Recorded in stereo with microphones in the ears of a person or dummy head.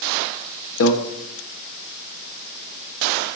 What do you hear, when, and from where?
0.8 s a microwave: 70° left (ahead or behind), 0.9 m